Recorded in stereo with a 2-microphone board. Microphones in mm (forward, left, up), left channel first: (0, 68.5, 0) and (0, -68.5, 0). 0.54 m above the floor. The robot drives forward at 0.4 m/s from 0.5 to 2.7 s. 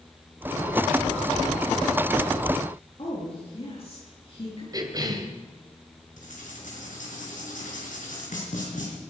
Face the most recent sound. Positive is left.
turn(degrees=70)  # may be behind; listen again after turning